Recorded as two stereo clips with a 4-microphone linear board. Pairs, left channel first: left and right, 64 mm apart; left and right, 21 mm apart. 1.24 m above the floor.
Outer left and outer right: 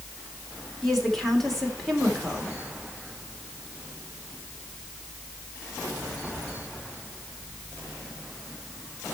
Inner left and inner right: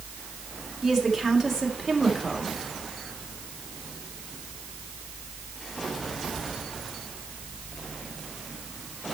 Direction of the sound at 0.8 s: 5° left (ahead or behind).